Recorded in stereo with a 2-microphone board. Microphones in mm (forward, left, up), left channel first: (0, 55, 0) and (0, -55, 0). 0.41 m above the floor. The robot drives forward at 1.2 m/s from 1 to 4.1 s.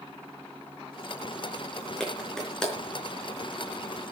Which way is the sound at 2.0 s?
5° left (ahead or behind).